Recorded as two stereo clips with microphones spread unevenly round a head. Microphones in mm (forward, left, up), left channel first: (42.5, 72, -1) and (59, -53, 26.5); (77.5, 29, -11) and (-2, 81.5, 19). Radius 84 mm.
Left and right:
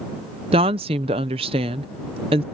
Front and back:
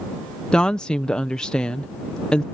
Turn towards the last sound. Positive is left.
turn(degrees=-125)